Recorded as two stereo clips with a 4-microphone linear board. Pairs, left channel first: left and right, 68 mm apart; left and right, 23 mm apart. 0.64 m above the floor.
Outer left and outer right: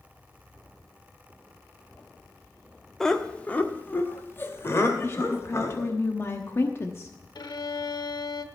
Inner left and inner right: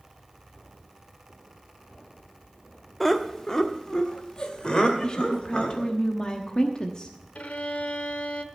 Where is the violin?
80° left, 0.9 m.